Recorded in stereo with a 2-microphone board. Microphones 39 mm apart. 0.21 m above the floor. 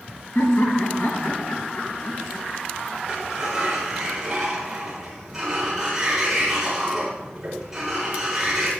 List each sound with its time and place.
0.3 s laughter: 70° left (ahead or behind), 3 m; by 2.5 s 65° left (ahead or behind), 2.5 m
3.1 s a sliding door: 10° right (ahead or behind), 5.5 m